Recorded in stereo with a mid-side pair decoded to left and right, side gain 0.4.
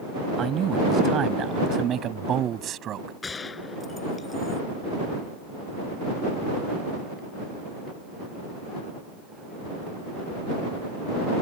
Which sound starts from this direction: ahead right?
A man speaking, at 0.4 s.